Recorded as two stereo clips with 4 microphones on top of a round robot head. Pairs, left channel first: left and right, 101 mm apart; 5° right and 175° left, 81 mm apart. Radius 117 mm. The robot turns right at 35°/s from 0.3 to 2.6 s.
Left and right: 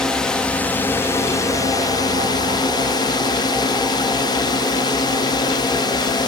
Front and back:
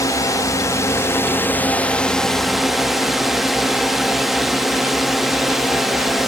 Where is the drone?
10° left; by 6.3 s 90° left.